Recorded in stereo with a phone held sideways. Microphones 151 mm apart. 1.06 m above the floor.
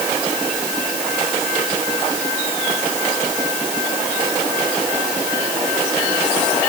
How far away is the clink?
I don't hear a clink.